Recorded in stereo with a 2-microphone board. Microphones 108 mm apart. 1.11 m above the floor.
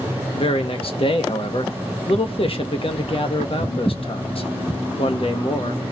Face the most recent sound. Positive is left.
turn(degrees=60)  # may be behind; listen again after turning